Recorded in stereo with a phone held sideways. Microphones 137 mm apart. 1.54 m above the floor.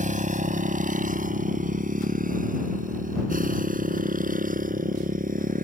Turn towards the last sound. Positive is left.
turn(degrees=-80)